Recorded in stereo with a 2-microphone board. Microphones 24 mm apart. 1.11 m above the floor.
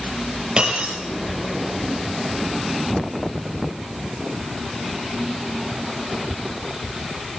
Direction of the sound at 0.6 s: 45° right (ahead or behind).